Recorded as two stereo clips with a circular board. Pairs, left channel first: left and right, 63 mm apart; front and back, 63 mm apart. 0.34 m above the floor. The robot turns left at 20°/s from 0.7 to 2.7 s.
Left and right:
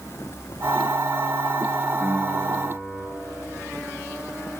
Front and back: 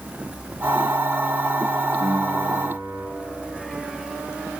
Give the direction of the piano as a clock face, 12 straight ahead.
6 o'clock.